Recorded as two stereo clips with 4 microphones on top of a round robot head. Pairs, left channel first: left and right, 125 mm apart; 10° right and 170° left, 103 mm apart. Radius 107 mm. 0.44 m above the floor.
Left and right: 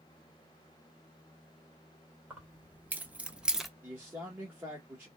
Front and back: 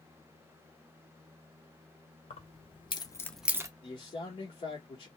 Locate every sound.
2.3 s keys jangling: 15° right, 1.7 m; by 3.7 s straight behind, 0.8 m
3.8 s a man speaking: 15° right, 1.6 m